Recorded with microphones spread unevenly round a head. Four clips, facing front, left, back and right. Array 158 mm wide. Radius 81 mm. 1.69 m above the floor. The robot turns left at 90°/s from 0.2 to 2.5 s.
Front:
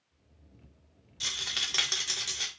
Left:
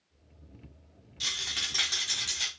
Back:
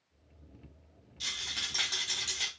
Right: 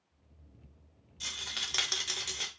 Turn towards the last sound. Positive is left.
turn(degrees=-70)